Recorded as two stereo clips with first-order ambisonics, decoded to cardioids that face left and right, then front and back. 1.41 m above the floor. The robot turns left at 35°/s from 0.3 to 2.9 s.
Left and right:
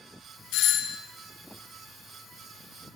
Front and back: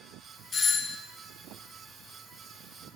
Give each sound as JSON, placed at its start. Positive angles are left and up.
{"t": 0.5, "sound": "a doorbell", "azimuth_deg": 70, "distance_m": 0.8}